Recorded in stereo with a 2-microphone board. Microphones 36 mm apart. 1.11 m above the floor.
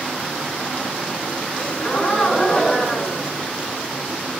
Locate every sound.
1.5 s a gasp: 25° left (ahead or behind), 1.2 m